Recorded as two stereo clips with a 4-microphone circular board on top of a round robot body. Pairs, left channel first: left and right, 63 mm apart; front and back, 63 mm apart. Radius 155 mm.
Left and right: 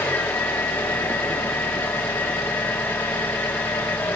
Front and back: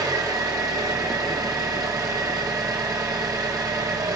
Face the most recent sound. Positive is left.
turn(degrees=150)